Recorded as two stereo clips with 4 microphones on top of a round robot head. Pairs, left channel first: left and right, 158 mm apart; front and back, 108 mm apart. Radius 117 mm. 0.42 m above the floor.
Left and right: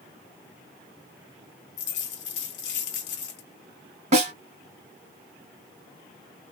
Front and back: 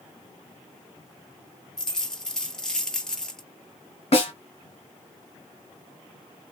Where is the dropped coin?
80° left, 0.8 m.